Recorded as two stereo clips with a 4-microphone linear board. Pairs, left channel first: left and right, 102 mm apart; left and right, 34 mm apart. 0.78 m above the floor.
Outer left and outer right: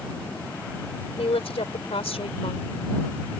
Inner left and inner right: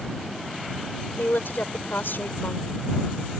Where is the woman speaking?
75° left (ahead or behind).